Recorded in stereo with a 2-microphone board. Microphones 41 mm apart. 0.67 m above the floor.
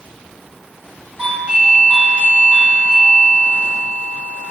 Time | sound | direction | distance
1.2 | a doorbell | 25° right (ahead or behind) | 1.8 m